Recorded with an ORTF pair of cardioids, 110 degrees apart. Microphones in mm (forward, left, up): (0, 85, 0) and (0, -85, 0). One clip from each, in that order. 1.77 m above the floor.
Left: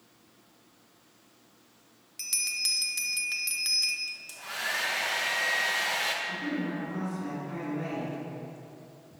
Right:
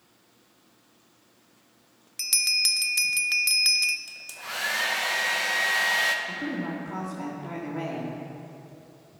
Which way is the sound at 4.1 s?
25° right.